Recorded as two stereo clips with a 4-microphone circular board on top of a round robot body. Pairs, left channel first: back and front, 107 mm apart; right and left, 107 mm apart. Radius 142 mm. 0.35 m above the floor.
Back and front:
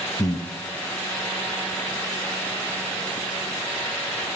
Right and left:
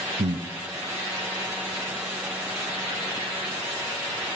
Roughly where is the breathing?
Behind left.